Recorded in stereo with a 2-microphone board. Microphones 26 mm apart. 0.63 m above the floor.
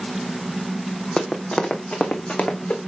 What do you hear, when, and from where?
1.2 s running footsteps: 25° left (ahead or behind), 1.6 m; by 2.8 s 60° left (ahead or behind), 3 m